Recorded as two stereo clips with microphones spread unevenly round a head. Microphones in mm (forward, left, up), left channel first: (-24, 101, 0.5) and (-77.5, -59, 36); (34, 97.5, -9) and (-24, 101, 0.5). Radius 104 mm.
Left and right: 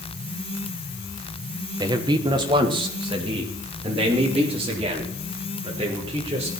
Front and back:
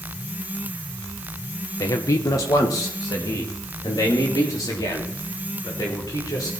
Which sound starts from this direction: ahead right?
A man speaking, at 1.8 s.